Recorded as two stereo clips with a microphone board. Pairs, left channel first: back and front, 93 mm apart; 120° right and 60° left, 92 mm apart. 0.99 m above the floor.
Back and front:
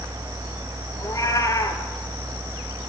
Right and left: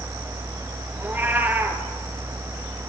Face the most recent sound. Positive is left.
turn(degrees=130)